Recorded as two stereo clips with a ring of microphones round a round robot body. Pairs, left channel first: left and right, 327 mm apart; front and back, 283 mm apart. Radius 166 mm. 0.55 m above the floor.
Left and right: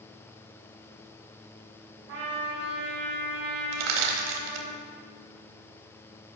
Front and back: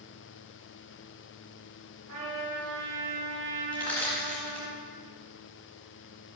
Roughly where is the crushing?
Right.